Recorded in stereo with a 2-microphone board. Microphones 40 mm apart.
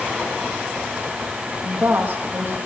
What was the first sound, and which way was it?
A woman speaking, 40° right (ahead or behind).